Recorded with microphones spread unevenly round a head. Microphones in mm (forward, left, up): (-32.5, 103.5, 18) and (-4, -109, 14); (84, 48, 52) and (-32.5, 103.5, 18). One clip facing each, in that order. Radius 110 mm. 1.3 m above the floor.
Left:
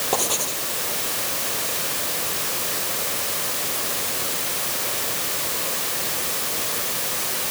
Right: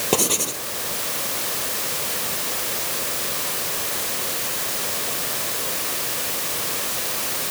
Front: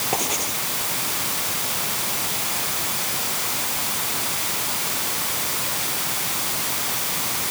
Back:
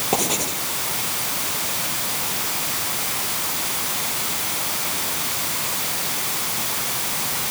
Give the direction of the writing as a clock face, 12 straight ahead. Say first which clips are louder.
Right 4 dB, back 4 dB; 4 o'clock.